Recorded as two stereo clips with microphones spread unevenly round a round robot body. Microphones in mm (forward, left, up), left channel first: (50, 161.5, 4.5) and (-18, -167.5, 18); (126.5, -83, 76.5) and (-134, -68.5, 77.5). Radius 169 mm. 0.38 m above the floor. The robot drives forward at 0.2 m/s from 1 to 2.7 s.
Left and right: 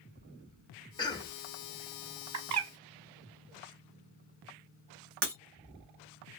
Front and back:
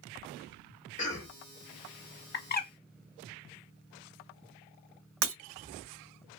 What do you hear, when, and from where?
1.0 s a cough: 15° left, 0.9 m; by 1.4 s 20° left, 0.9 m
2.3 s a bird: 55° right, 0.6 m; by 2.7 s 65° right, 0.6 m
5.2 s breaking glass: 165° right, 1.1 m